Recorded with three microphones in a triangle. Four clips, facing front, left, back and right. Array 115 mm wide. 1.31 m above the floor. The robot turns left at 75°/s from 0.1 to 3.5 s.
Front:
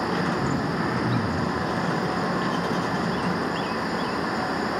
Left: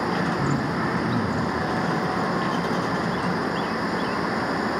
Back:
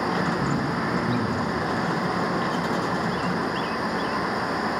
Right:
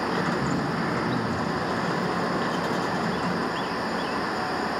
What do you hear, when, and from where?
0.4 s throat clearing: 110° left, 2 m; by 1.6 s 15° left, 2 m